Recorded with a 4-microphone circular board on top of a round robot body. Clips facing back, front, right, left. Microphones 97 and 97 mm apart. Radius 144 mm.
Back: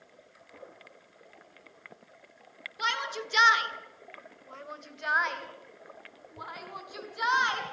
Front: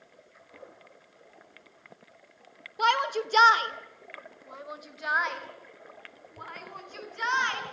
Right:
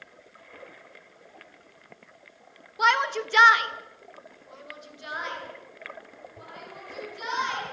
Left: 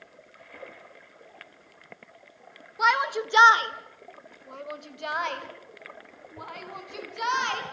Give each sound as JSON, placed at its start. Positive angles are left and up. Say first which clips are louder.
{"t": 2.8, "sound": "a shout", "louder": "front 8 dB, even", "azimuth_deg": 0, "distance_m": 2.0}